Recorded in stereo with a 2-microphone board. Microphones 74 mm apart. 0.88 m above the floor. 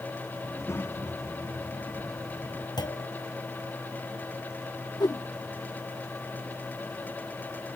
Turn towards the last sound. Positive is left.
turn(degrees=75)  # may be behind; listen again after turning